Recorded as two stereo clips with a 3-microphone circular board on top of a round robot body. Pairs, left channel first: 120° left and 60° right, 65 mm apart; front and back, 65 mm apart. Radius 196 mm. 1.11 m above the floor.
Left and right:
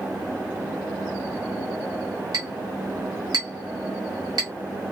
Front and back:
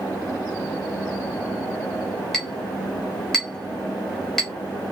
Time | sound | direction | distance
2.3 | a clink | 85° right | 0.6 m